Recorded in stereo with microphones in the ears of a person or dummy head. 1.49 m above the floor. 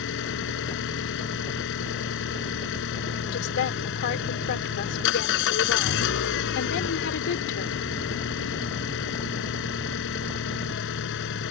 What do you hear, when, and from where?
0.0 s an engine running: 65° left (ahead or behind)
3.3 s a woman speaking: 65° left (ahead or behind)